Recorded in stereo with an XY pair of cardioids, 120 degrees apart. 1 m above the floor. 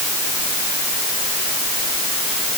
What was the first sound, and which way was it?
Only background noise.